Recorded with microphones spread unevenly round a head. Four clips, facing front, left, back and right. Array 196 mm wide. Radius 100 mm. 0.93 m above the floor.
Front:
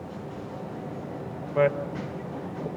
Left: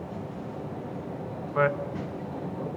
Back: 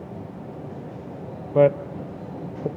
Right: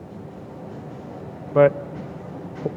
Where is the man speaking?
130° right, 0.7 m.